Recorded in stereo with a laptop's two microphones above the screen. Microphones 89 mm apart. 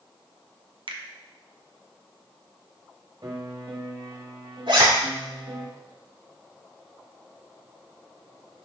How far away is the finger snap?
About 0.8 m.